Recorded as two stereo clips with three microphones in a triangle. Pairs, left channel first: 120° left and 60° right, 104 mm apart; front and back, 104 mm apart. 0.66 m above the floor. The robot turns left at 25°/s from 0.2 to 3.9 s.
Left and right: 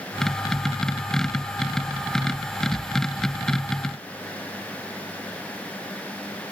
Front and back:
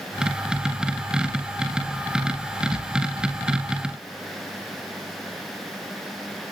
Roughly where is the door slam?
I don't hear a door slam.